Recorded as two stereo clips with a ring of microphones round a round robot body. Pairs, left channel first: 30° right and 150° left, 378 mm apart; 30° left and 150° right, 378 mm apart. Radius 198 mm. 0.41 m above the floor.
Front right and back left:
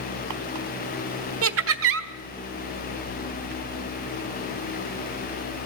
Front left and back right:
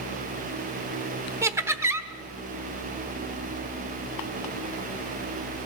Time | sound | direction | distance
1.4 | laughter | 130° left | 1.1 m